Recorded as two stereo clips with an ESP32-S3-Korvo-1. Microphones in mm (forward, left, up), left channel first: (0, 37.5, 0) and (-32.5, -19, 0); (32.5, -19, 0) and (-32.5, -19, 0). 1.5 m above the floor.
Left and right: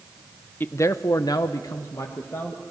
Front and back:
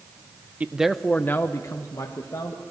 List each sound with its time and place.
0.6 s a man speaking: 115° left, 0.7 m; by 2.6 s 20° left, 1.7 m